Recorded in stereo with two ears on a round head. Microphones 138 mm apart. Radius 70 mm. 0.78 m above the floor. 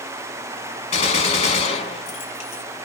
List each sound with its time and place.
0.9 s a gunshot: 40° left (ahead or behind), 1.2 m